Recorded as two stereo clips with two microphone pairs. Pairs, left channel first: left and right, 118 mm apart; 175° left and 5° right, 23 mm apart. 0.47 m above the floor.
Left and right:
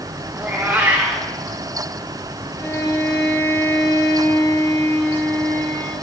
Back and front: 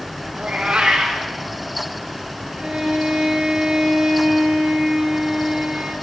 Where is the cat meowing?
20° right, 4 m.